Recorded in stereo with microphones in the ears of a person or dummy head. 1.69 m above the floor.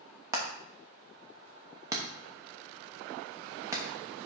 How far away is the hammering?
About 0.8 m.